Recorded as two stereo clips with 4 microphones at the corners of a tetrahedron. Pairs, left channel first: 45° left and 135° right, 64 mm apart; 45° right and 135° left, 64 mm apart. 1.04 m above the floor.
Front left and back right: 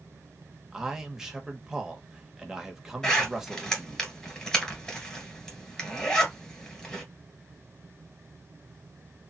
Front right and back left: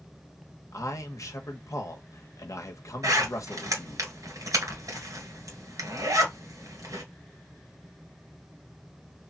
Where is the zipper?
125° left, 2 m.